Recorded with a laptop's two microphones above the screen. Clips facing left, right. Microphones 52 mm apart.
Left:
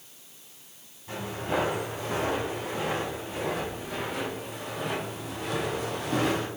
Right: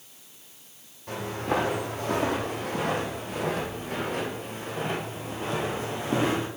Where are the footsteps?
70° right (ahead or behind), 3 m; by 6.5 s 25° right (ahead or behind), 2.5 m.